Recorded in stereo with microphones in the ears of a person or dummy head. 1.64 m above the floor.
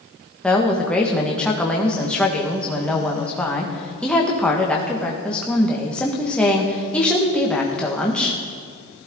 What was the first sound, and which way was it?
A woman speaking, 5° left (ahead or behind).